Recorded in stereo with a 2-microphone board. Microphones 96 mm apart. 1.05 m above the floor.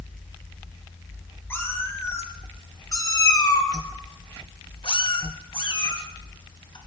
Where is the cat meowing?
25° left (ahead or behind), 3 m; by 6.8 s 55° left (ahead or behind), 2.5 m.